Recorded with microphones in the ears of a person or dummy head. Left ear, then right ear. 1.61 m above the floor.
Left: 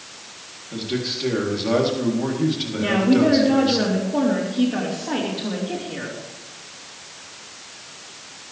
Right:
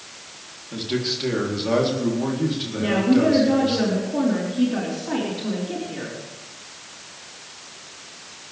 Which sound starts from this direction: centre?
A man speaking, at 0.7 s.